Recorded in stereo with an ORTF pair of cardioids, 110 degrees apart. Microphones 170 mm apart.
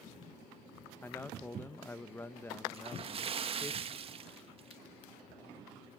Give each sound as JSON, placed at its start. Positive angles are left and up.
{"t": 1.0, "sound": "a man speaking", "azimuth_deg": 15, "distance_m": 1.0}
{"t": 2.7, "sound": "a splash", "azimuth_deg": -35, "distance_m": 1.5}